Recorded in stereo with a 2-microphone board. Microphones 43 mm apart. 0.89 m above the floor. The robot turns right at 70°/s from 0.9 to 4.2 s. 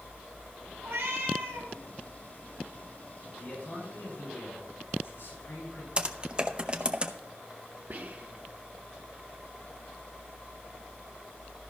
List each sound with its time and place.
0.8 s a cat meowing: 115° right, 3.5 m; by 1.7 s 60° right, 3.5 m
3.4 s a man speaking: 15° left, 5.5 m; by 5.9 s 75° left, 5.5 m
6.0 s typing on a keyboard: 25° right (ahead or behind), 0.7 m
7.9 s whispering: 45° right (ahead or behind), 0.6 m